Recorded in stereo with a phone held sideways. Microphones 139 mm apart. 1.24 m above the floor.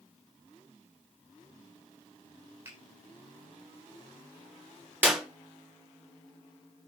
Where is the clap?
15° right (ahead or behind), 3.5 m.